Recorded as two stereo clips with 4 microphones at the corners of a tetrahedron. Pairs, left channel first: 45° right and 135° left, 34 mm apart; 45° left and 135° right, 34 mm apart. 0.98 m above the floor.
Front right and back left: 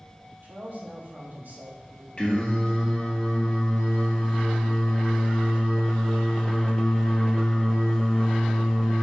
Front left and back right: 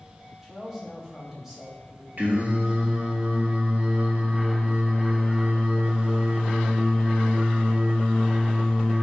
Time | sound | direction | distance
0.4 | a man speaking | 145° left | 2.5 m
2.2 | singing | 105° right | 1.4 m